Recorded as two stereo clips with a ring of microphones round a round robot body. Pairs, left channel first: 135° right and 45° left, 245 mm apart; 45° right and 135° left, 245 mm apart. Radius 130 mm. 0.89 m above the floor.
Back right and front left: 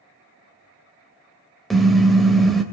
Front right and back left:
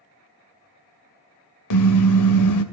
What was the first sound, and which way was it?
A car horn, 45° right.